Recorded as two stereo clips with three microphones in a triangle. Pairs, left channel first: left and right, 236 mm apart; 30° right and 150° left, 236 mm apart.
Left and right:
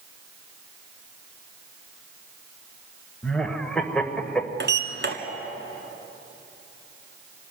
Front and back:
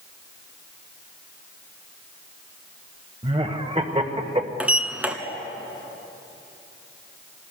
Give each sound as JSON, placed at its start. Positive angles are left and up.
{"t": 3.2, "sound": "laughter", "azimuth_deg": 175, "distance_m": 1.5}
{"t": 4.6, "sound": "a sliding door", "azimuth_deg": -125, "distance_m": 1.5}